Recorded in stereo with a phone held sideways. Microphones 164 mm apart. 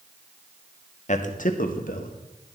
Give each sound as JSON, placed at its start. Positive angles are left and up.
{"t": 1.1, "sound": "a man speaking", "side_deg": 50, "distance_m": 1.1}